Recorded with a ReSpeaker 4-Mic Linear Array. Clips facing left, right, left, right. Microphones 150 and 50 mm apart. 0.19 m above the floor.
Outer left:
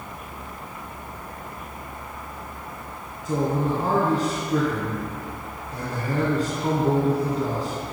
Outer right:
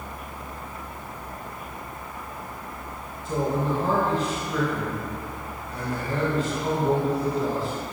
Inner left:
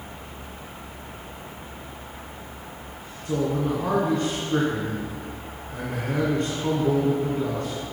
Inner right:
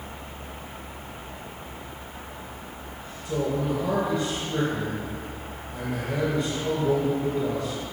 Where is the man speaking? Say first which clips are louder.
Outer left 2 dB, inner left 2 dB; 40° left (ahead or behind), 2 m.